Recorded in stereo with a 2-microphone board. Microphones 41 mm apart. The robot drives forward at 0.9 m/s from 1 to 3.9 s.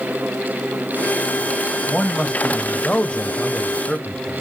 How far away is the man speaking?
About 1.5 m.